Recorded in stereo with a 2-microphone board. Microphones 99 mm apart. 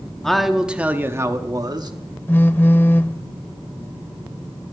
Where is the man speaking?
5° left (ahead or behind), 1.0 m; by 1.9 s 45° right (ahead or behind), 1.1 m.